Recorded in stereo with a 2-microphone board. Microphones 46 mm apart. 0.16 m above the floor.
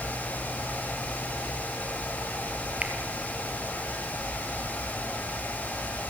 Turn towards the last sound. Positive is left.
turn(degrees=-30)  # may be behind; listen again after turning